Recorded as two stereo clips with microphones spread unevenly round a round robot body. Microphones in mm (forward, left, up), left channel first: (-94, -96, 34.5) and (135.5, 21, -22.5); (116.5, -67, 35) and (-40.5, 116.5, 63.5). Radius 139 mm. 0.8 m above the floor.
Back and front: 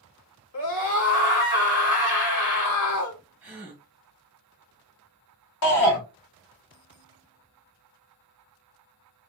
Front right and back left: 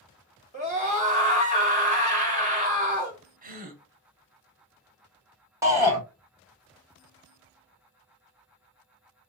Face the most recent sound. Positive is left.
turn(degrees=-150)